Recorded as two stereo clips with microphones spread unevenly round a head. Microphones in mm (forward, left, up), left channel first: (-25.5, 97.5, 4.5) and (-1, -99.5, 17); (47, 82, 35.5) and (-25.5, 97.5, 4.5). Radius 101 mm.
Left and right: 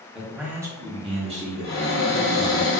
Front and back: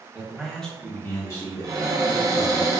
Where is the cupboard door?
135° left, 0.9 m.